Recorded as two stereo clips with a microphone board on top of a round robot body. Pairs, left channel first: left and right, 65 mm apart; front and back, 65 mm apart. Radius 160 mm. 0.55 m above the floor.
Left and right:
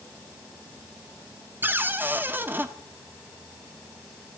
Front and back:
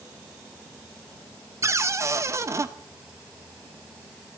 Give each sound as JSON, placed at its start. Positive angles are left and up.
{"t": 1.6, "sound": "a cupboard door", "azimuth_deg": -145, "distance_m": 1.4}